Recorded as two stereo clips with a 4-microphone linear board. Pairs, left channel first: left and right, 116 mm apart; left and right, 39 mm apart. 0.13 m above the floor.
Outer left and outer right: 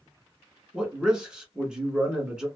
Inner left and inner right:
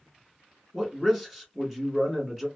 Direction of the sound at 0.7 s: 5° right (ahead or behind).